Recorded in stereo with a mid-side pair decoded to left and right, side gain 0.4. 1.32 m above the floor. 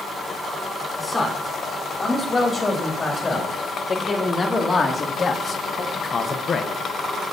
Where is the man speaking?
25° left, 5 m; by 6.7 s 50° left, 1.0 m.